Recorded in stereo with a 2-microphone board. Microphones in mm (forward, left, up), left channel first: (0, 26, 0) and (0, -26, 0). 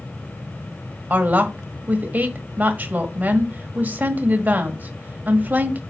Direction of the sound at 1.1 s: 30° right (ahead or behind).